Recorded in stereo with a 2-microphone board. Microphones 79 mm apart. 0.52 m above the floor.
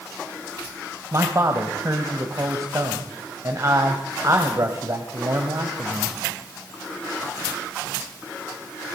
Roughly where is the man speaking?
Right.